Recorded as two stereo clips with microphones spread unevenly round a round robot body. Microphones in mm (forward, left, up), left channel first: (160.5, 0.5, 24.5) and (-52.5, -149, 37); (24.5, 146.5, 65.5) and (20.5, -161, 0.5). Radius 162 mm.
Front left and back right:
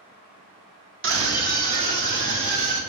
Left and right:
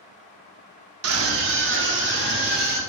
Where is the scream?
110° right, 1.3 m; by 2.8 s 150° right, 3 m.